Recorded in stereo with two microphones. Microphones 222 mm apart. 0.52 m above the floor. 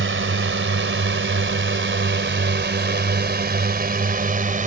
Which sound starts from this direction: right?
A drone, at 0.0 s.